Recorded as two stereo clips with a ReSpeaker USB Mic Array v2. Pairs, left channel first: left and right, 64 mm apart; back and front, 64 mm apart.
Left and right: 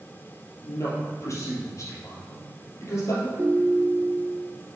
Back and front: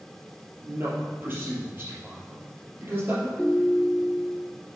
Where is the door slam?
I don't hear a door slam.